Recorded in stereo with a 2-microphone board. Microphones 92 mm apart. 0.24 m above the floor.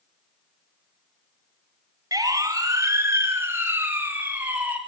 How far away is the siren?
About 2.5 m.